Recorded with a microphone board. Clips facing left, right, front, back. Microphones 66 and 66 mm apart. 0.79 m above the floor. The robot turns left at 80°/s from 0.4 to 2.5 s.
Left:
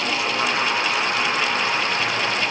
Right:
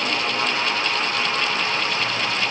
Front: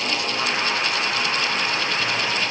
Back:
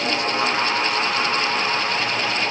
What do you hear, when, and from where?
Only background noise.